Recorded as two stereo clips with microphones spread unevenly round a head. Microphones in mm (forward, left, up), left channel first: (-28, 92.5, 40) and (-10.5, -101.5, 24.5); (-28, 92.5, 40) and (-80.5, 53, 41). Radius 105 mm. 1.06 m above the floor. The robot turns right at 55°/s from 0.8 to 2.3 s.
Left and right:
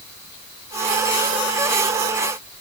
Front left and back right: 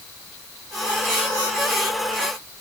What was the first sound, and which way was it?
Only background noise.